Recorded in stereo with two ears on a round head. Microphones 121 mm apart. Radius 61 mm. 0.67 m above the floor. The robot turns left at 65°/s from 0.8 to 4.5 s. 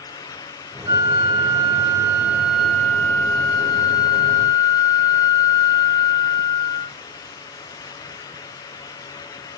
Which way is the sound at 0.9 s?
25° right (ahead or behind).